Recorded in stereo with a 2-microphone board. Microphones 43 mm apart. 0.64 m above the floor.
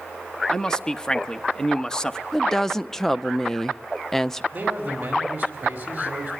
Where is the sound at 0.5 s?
15° left (ahead or behind), 0.9 m.